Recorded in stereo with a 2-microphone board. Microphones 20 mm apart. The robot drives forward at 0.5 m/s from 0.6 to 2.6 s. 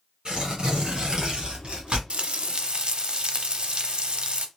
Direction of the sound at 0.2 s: 55° right (ahead or behind).